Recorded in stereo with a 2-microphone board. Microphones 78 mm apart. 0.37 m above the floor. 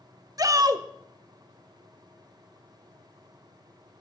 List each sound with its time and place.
0.4 s a shout: 45° right (ahead or behind), 1.2 m